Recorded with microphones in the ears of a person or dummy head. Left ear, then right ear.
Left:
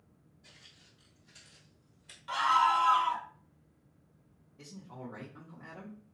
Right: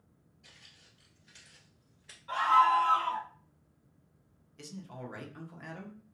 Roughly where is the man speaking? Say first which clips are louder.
Right 2 dB; right.